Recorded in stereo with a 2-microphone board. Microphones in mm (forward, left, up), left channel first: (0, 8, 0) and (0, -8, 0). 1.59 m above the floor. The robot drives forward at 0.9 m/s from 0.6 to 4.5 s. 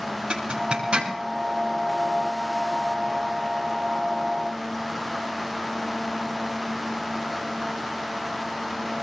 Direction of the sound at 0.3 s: 80° right.